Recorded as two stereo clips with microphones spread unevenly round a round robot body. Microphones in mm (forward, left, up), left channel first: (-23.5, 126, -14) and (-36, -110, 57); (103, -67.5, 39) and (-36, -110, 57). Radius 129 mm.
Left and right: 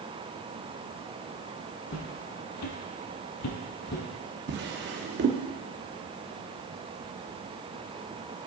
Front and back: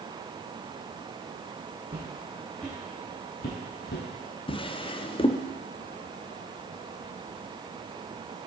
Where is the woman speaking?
No woman speaking in this recording.